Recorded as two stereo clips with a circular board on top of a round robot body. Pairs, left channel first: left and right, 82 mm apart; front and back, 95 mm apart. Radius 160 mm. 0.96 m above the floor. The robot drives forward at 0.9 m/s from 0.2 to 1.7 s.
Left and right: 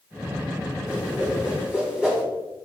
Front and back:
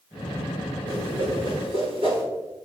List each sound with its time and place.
0.9 s a whoosh: 165° right, 3 m; by 2.2 s 170° right, 3.5 m